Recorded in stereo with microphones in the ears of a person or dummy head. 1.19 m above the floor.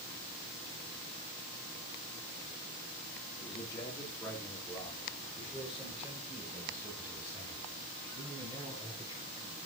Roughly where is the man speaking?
Left.